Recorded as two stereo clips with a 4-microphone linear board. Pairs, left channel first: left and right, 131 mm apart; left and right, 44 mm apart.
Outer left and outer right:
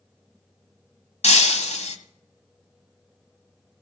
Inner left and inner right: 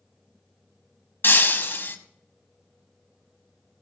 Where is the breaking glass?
60° left (ahead or behind), 1.2 m.